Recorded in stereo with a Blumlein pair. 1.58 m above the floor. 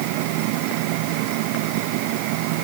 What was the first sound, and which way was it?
Only background noise.